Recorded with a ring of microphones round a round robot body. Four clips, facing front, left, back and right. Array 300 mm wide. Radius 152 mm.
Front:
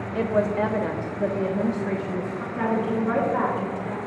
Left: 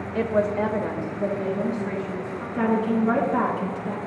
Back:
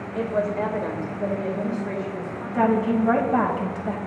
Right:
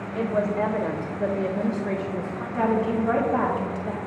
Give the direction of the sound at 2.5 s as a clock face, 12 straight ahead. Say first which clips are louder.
Left 1 dB, back 4 dB; 6 o'clock.